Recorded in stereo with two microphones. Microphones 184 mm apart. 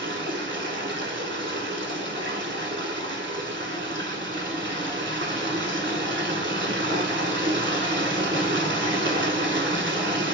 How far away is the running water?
About 0.8 m.